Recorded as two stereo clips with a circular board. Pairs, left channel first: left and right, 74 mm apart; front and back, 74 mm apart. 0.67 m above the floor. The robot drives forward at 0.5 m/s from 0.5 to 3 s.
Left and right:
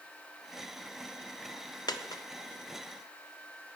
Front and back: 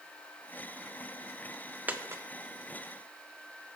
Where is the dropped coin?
110° left, 0.5 m; by 2.2 s 130° left, 0.6 m.